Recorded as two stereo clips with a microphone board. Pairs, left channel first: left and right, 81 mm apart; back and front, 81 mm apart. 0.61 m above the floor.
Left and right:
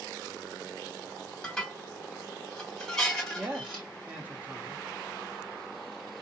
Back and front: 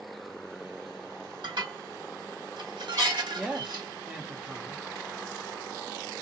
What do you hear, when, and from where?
1.4 s dishes clattering: 10° left, 1.6 m
3.4 s a man speaking: 60° right, 0.5 m